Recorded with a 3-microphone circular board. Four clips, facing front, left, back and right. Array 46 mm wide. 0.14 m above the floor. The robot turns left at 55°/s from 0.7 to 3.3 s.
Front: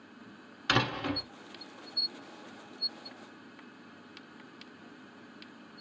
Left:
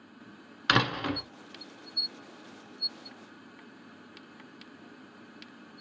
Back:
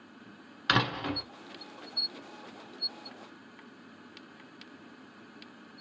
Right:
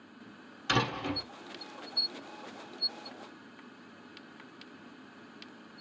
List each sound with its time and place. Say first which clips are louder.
0.7 s a door slam: left 4 dB, back 1 dB; 110° left, 1.1 m; by 1.2 s 80° left, 1.1 m